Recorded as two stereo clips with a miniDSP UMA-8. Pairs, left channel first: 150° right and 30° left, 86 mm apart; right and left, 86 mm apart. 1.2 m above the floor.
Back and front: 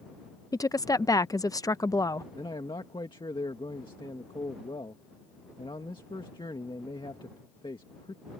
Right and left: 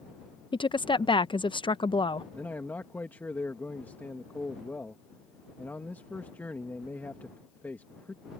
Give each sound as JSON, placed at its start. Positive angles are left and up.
{"t": 0.5, "sound": "a woman speaking", "azimuth_deg": -105}
{"t": 2.4, "sound": "a man speaking", "azimuth_deg": -155}